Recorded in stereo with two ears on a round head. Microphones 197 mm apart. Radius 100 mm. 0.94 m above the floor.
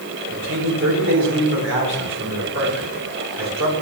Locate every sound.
0.3 s a man speaking: 55° right (ahead or behind), 3.5 m